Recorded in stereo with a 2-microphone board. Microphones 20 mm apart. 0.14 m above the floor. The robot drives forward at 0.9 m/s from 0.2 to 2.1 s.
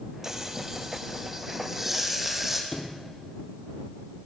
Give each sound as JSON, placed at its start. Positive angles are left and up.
{"t": 0.2, "sound": "frying", "side_deg": -25, "distance_m": 2.0}
{"t": 2.7, "sound": "a sliding door", "side_deg": 30, "distance_m": 3.5}